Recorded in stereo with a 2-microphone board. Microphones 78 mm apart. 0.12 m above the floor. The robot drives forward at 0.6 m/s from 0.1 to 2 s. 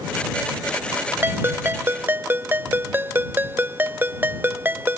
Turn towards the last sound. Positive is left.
turn(degrees=-25)  # may be behind; listen again after turning